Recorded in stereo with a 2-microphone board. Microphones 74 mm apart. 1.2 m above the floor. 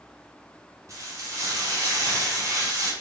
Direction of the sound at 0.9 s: 45° right (ahead or behind).